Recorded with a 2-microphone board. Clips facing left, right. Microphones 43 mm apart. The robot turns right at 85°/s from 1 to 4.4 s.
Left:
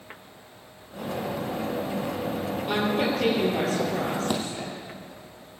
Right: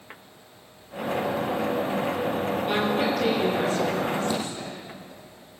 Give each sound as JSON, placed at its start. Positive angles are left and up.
{"t": 2.7, "sound": "a woman speaking", "azimuth_deg": -15, "distance_m": 8.5}
{"t": 4.3, "sound": "a thud", "side_deg": 65, "distance_m": 4.0}